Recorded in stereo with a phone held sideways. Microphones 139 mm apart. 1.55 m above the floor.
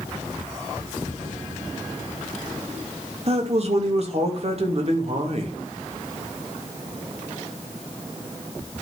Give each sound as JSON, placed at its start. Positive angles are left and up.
{"t": 3.3, "sound": "a man speaking", "side_deg": -45, "distance_m": 2.5}